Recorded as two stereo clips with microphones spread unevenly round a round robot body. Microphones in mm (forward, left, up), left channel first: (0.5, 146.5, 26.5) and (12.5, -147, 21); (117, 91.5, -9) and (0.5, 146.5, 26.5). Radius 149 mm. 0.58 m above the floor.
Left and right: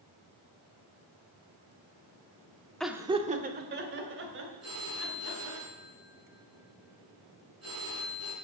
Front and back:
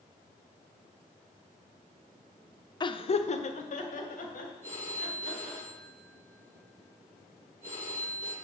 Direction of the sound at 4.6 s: 130° right.